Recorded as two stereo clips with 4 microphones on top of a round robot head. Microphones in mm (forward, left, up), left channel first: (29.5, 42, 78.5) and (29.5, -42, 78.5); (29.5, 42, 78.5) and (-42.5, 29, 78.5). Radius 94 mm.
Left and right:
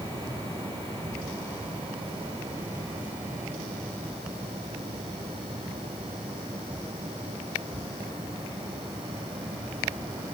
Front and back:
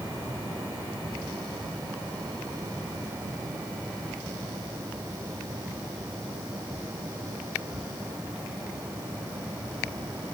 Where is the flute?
No flute in this recording.